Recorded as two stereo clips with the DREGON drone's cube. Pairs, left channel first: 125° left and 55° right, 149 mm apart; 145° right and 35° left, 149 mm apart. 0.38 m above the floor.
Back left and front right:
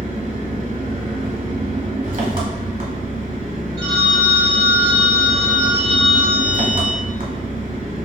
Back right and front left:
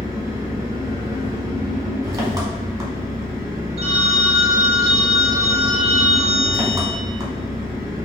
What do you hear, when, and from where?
0.0 s an engine running: 30° right, 1.0 m
3.8 s a phone ringing: 10° right, 0.9 m